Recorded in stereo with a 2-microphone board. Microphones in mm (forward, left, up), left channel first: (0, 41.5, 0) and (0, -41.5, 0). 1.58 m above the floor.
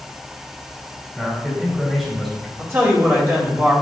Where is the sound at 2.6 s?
30° right (ahead or behind), 2 m.